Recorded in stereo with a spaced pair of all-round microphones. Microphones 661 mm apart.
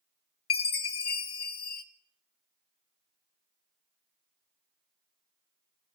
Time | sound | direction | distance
0.5 | a chime | 55° left (ahead or behind) | 0.7 m